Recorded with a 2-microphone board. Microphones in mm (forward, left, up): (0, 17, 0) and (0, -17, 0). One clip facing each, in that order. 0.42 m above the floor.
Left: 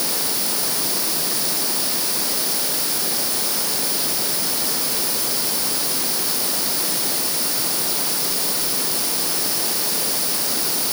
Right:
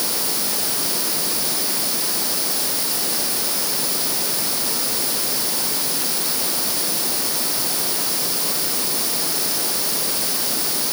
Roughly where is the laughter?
I don't hear laughter.